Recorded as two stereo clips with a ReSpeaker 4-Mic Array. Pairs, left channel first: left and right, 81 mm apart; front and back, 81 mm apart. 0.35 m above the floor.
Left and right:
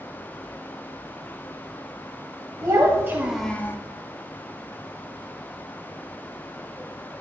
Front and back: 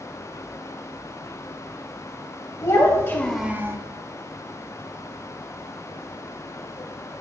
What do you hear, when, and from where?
2.6 s a child speaking: 40° right, 1.1 m; by 3.8 s 140° left, 0.7 m